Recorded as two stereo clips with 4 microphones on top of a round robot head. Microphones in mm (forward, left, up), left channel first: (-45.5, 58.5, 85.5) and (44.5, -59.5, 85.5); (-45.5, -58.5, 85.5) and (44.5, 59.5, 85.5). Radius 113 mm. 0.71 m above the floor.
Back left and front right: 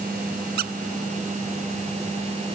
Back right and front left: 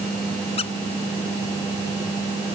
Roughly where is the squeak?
Right.